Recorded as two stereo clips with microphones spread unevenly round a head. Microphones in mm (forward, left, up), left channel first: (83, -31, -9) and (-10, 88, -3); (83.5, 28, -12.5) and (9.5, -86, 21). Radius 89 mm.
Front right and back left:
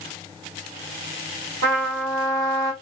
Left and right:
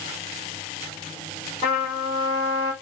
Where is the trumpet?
115° left, 3 m.